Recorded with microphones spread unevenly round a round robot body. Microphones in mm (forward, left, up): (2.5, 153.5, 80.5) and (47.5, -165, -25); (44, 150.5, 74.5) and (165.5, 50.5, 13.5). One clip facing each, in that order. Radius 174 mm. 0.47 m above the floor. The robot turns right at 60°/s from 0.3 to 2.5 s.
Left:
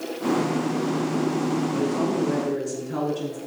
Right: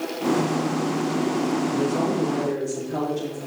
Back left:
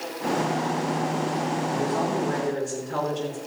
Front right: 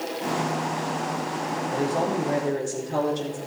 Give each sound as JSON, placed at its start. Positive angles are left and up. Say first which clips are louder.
{"t": 1.7, "sound": "a woman speaking", "louder": "right 1 dB, front right 3 dB", "azimuth_deg": -20, "distance_m": 6.5}